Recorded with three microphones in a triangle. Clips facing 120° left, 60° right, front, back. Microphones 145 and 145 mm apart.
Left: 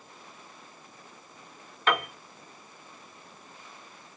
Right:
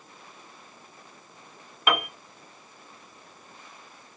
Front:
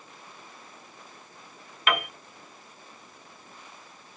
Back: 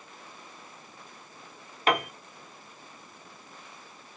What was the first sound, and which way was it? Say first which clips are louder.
A piano: right 1 dB, back 2 dB; 135° right.